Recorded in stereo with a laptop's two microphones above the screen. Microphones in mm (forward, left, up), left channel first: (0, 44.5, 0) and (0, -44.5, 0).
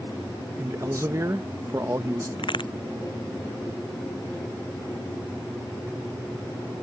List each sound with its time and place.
0.6 s a man speaking: 35° right (ahead or behind)
2.4 s a crack: 65° left (ahead or behind)